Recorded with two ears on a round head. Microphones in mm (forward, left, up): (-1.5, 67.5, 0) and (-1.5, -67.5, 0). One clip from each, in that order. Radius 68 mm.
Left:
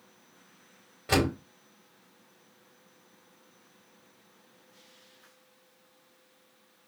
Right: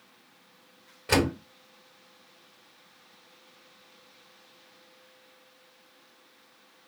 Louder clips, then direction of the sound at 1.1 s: Right 2 dB; 10° right (ahead or behind).